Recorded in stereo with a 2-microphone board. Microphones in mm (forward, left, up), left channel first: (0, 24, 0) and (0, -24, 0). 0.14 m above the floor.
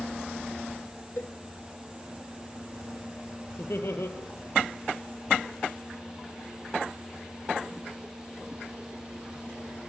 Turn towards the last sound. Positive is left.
turn(degrees=70)  # may be behind; listen again after turning